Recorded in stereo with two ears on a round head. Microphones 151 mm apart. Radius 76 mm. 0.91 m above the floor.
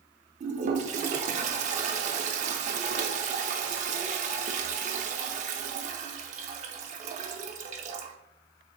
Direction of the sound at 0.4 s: 45° right (ahead or behind).